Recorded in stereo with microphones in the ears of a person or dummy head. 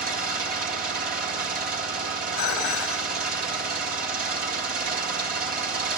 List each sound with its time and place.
0.0 s an engine running: 45° right (ahead or behind), 1.7 m
2.4 s dishes clattering: 55° left (ahead or behind), 2.5 m